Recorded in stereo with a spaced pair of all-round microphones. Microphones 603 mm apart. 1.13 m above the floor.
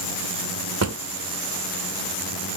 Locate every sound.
0.8 s a drawer: 30° right (ahead or behind), 0.5 m